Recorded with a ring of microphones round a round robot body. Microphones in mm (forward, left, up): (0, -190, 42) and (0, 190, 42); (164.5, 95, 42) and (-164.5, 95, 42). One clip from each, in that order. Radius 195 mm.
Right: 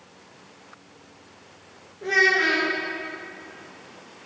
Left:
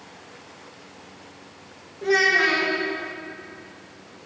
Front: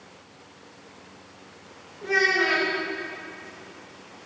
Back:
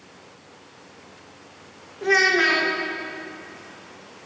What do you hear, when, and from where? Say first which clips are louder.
2.0 s a child speaking: left 1 dB, back 4 dB; 170° left, 1.6 m